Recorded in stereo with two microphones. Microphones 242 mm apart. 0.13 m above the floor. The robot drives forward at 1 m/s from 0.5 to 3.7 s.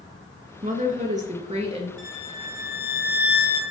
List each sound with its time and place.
0.6 s a woman speaking: 35° right (ahead or behind), 2 m; by 1.9 s 25° right (ahead or behind), 3 m
2.0 s a violin: 35° left (ahead or behind), 2.5 m; by 3.6 s 45° left (ahead or behind), 2 m